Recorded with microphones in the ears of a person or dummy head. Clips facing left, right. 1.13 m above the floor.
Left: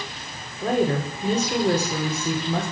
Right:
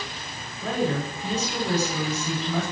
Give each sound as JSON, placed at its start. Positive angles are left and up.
{"t": 0.6, "sound": "a woman speaking", "side_deg": 40, "distance_m": 3.0}